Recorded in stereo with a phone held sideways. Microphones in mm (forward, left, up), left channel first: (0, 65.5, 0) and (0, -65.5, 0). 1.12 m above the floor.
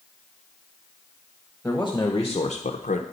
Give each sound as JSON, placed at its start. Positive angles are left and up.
{"t": 1.6, "sound": "a man speaking", "side_deg": 10, "distance_m": 1.2}